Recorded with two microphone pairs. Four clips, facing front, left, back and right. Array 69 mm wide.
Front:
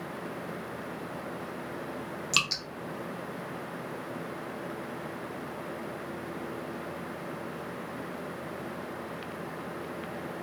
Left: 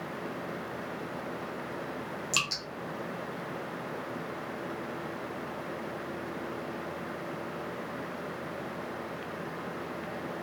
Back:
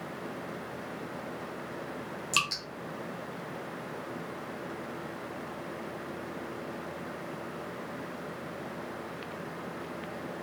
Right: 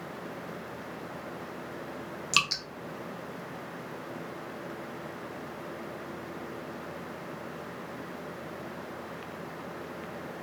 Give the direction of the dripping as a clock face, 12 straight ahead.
3 o'clock.